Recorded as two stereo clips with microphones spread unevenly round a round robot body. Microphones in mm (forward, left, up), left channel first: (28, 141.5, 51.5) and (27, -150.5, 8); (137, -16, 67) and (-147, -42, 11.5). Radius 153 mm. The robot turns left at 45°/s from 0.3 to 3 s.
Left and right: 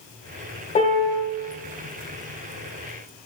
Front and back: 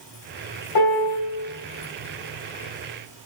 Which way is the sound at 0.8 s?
20° left.